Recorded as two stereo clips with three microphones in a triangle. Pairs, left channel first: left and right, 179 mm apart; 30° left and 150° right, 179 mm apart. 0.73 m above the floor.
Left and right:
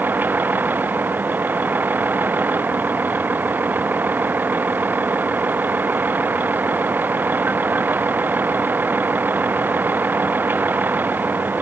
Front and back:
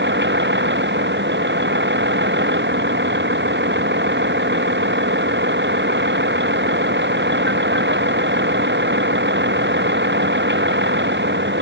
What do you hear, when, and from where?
0.0 s a vehicle: 170° right